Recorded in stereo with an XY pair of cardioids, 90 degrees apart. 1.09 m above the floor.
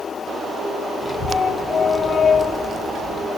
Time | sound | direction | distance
1.0 | a child speaking | 40° left | 1.3 m